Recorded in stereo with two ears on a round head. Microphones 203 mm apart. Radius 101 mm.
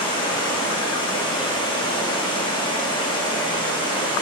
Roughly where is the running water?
Centre.